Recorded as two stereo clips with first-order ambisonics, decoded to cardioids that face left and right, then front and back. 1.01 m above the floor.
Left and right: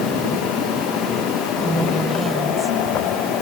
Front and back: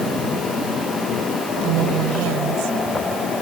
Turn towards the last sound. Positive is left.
turn(degrees=180)